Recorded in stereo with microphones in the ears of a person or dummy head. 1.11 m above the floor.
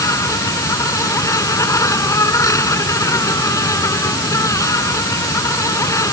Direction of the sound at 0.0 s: 10° left (ahead or behind).